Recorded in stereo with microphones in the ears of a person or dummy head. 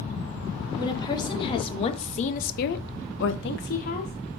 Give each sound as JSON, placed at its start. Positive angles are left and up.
{"t": 0.8, "sound": "a woman speaking", "side_deg": 30, "distance_m": 2.5}